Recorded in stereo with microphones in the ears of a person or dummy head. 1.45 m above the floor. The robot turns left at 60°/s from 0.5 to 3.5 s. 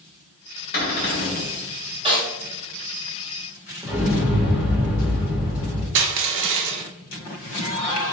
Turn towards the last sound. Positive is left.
turn(degrees=-65)  # may be behind; listen again after turning